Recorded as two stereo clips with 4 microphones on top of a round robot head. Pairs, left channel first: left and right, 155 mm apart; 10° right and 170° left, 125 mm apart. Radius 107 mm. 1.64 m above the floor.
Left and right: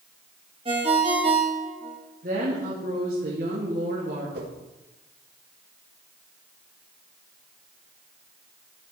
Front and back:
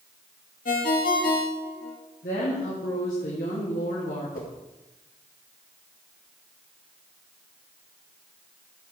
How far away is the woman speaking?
About 2.5 m.